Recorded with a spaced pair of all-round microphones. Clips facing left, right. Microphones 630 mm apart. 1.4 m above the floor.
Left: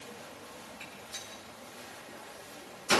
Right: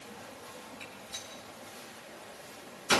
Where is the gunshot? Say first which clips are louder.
Right 1 dB; centre (ahead or behind), 6.5 m.